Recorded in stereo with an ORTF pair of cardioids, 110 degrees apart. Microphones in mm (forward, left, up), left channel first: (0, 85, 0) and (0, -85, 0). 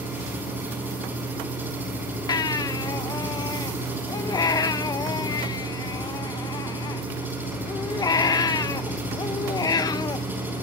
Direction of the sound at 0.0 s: 10° right.